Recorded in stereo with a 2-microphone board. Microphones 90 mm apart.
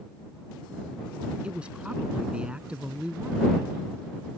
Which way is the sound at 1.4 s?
15° right (ahead or behind).